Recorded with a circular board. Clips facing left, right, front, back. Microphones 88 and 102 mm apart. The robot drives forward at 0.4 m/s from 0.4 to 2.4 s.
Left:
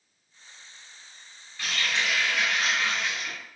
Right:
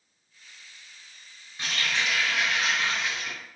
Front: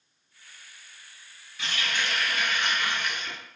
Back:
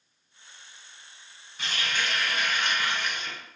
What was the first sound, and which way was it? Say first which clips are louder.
A running tap: even, even; 150° right.